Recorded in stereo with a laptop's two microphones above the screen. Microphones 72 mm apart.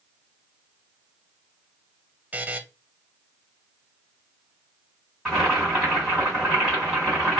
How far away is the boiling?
About 1.7 m.